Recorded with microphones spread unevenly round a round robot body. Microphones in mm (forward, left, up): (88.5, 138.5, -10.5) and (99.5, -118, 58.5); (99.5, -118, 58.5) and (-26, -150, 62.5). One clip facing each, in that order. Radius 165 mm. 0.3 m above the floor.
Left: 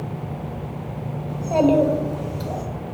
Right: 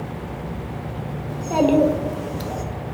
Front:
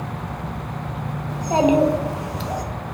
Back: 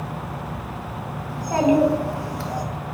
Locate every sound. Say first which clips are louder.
1.3 s a child speaking: even, front 1 dB; 15° right, 0.6 m